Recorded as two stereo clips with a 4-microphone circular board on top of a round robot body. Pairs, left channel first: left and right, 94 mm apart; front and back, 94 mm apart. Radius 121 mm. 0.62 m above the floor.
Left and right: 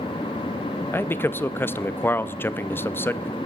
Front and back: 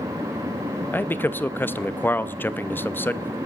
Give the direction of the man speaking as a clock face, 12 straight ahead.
10 o'clock.